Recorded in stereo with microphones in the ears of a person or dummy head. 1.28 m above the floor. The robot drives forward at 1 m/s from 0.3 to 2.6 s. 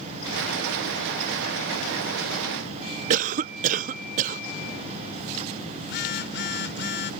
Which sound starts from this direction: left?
A phone buzzing, at 5.8 s.